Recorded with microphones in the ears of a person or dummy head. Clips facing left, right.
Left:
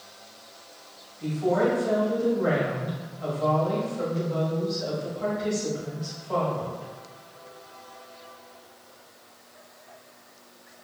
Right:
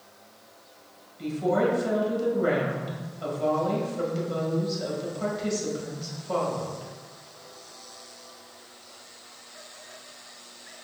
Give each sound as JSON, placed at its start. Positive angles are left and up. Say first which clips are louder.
{"t": 1.2, "sound": "a woman speaking", "louder": "left 1 dB", "side_deg": -60, "distance_m": 1.9}